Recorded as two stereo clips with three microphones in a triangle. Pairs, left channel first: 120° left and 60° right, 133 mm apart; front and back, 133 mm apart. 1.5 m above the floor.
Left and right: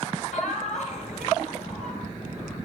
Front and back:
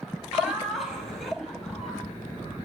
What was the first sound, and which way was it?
Laughter, 90° left.